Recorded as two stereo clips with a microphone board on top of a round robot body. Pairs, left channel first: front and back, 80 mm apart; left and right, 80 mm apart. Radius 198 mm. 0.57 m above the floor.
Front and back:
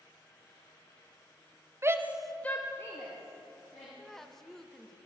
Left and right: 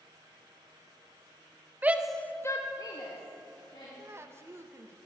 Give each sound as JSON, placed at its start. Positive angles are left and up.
{"t": 1.8, "sound": "a shout", "azimuth_deg": -145, "distance_m": 0.8}
{"t": 4.0, "sound": "a woman speaking", "azimuth_deg": -85, "distance_m": 0.7}